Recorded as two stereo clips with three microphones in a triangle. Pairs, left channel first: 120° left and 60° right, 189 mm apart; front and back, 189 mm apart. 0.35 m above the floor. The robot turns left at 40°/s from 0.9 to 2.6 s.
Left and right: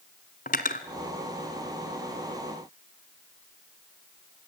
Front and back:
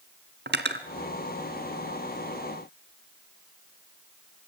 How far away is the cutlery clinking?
About 1.9 m.